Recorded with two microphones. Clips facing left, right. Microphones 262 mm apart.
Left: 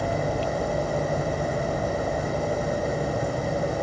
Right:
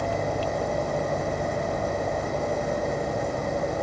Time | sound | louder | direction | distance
0.0 | an engine running | left 1 dB | centre (ahead or behind) | ?